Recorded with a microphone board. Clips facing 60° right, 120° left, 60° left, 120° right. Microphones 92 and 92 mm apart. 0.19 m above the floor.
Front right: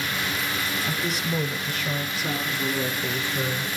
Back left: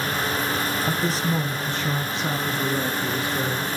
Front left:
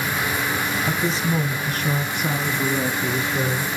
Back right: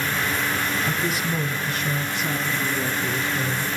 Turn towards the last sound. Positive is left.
turn(degrees=50)